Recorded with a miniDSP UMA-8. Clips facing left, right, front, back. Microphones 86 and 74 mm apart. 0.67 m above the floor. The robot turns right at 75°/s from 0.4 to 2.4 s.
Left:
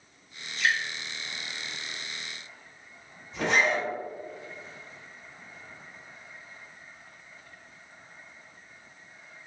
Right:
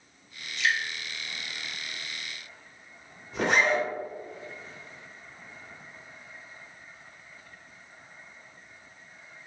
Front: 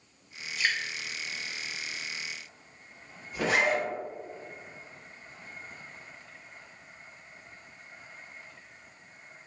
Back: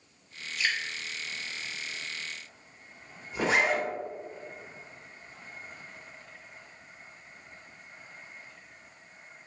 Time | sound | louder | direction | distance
0.6 | dripping | left 1 dB, front 1 dB | 60° left | 0.8 m
3.3 | a zipper | right 1 dB, even | 115° right | 1.1 m